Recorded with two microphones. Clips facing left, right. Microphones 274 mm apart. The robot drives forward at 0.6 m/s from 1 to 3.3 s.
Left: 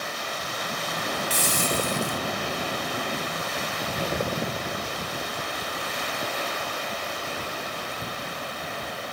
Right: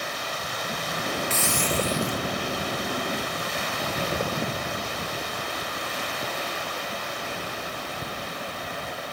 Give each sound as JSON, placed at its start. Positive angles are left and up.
{"t": 1.3, "sound": "a hiss", "side_deg": 35}